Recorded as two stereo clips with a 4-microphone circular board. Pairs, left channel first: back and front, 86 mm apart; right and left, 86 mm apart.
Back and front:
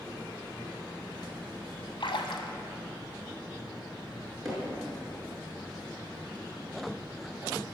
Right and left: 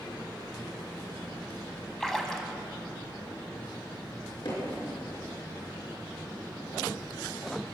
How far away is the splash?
About 1.2 m.